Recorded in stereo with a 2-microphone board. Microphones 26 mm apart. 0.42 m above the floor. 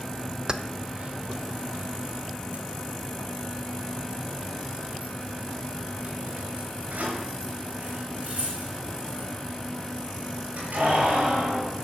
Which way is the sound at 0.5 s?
30° right (ahead or behind).